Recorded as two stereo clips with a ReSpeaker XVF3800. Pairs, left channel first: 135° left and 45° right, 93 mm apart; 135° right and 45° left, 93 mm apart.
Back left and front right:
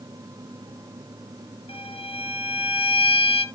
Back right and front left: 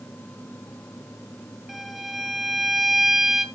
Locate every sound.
1.7 s a violin: 135° left, 2.5 m